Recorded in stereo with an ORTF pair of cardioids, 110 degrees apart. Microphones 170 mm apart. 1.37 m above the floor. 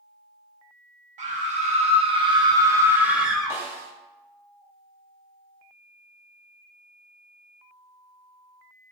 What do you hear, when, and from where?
1.2 s a scream: 50° right, 1.5 m; by 3.6 s 5° left, 1.0 m
3.5 s a snare drum: 15° right, 1.2 m